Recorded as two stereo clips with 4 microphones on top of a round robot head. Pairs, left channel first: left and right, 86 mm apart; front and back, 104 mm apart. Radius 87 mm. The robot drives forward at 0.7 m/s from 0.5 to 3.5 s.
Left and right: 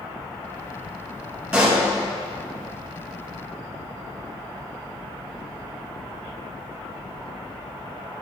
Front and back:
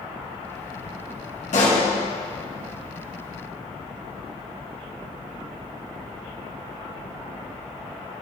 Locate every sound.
1.5 s a pop: 10° right, 2.0 m